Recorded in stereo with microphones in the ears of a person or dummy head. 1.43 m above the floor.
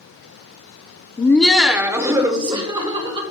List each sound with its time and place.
1.2 s laughter: 20° left (ahead or behind), 0.7 m; by 3.2 s 25° right (ahead or behind), 2.5 m